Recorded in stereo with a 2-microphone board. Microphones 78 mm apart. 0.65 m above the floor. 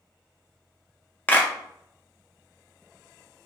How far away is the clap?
About 0.7 m.